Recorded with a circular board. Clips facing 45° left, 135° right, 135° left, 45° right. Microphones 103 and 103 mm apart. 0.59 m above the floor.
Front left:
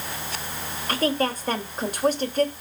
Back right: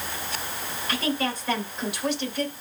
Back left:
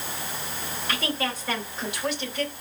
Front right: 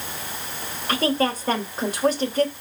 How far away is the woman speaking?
About 3 m.